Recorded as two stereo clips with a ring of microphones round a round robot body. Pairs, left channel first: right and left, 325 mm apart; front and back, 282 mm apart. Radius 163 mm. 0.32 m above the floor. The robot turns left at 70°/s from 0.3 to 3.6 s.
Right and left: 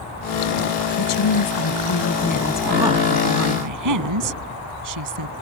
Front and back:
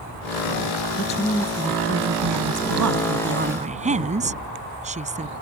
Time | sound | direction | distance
1.0 | a woman speaking | 60° right | ?